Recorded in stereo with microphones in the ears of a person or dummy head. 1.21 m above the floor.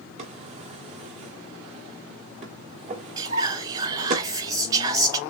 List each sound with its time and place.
0.2 s a drawer: 45° right (ahead or behind), 1.3 m
3.2 s whispering: 20° right (ahead or behind), 0.9 m